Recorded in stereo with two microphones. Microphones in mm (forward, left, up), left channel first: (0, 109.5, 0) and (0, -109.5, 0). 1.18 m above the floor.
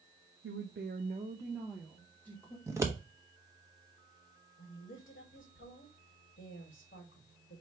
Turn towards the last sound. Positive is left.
turn(degrees=60)  # may be behind; listen again after turning